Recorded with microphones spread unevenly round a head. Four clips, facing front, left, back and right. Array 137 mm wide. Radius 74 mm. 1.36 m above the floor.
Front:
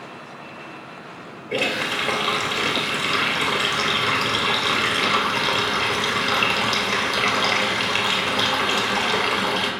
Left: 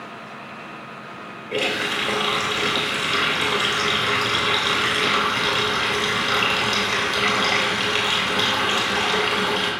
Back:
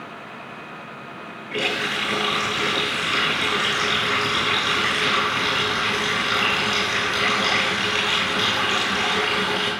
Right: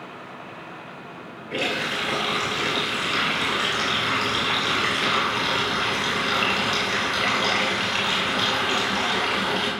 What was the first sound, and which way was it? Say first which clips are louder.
A running tap: left 2 dB, front 1 dB; 10° left.